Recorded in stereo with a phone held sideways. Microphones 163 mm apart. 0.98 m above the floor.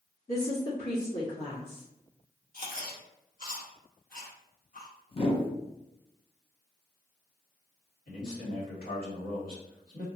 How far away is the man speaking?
About 1.7 m.